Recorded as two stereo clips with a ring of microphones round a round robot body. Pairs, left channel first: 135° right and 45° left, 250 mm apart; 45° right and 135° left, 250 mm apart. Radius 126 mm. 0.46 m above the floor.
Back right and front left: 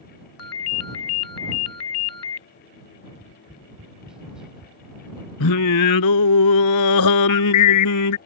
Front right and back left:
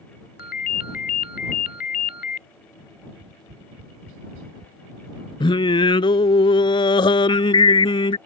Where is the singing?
115° right.